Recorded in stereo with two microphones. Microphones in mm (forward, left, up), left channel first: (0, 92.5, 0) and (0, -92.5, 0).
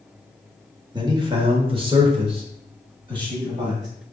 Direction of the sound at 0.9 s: 25° right (ahead or behind).